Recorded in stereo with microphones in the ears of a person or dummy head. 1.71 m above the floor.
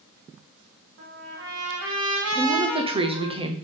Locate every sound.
1.0 s a trumpet: 65° right (ahead or behind), 1.8 m
2.4 s a woman speaking: 30° right (ahead or behind), 0.8 m